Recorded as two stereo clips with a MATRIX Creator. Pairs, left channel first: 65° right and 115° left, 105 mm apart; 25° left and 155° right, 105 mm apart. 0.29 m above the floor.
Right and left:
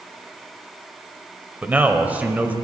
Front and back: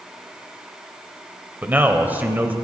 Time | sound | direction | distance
1.6 | a man speaking | 160° left | 0.9 m